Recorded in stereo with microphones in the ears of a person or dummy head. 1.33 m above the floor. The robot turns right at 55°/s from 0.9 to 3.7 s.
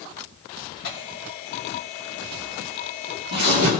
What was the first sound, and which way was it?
Tearing paper, 60° left (ahead or behind).